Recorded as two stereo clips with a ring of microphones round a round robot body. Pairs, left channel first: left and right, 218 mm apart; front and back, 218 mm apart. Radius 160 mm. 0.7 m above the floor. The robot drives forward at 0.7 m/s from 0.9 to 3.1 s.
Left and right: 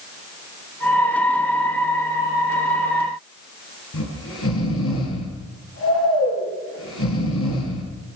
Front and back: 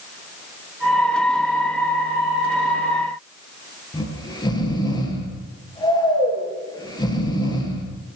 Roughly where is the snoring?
Left.